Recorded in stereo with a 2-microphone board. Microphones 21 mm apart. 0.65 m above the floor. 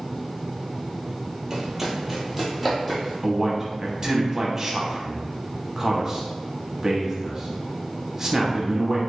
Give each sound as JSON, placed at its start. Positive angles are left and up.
{"t": 1.5, "sound": "running footsteps", "side_deg": -25, "distance_m": 0.9}
{"t": 3.2, "sound": "a man speaking", "side_deg": -20, "distance_m": 0.8}